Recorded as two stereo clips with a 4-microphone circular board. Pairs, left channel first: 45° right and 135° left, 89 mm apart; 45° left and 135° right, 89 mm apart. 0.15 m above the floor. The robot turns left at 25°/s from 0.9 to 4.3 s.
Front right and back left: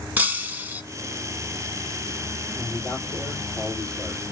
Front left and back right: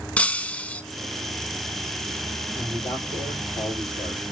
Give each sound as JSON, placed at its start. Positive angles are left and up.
{"t": 0.2, "sound": "breaking glass", "azimuth_deg": 100, "distance_m": 0.5}
{"t": 2.5, "sound": "a man speaking", "azimuth_deg": -75, "distance_m": 3.5}